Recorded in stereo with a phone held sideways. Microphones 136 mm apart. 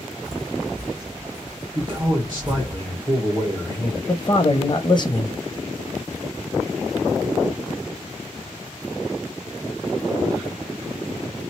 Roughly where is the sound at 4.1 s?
Left.